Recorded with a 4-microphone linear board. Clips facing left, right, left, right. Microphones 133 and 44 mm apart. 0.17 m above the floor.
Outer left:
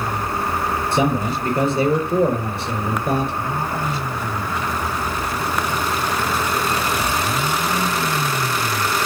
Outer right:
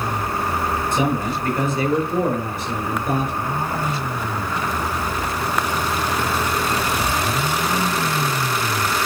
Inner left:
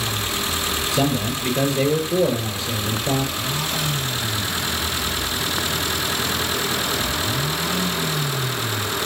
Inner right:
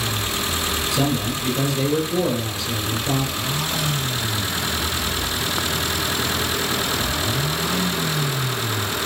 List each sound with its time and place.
0.9 s a man speaking: 35° left (ahead or behind), 4 m